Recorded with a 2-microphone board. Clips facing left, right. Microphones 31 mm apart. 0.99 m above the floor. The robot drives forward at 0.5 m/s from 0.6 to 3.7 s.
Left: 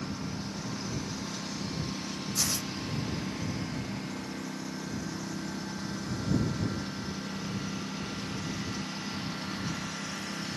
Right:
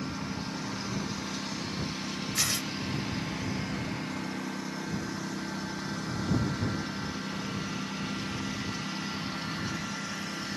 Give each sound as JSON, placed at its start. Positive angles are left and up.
{"t": 0.0, "sound": "a lawn mower", "side_deg": -20}
{"t": 2.4, "sound": "tearing paper", "side_deg": -45}